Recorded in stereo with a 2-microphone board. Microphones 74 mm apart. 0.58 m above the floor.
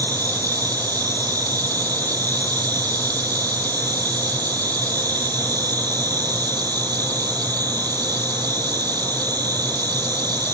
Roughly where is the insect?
Right.